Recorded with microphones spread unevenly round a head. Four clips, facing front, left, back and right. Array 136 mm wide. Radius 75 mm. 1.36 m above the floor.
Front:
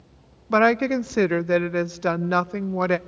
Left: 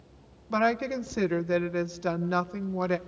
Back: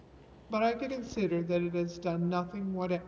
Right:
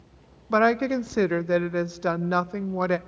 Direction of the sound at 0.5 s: 25° right.